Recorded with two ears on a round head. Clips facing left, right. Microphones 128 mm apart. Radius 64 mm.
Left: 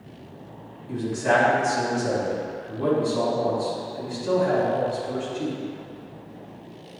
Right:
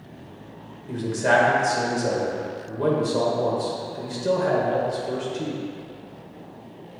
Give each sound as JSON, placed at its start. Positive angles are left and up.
{"t": 0.9, "sound": "a man speaking", "side_deg": -65, "distance_m": 2.0}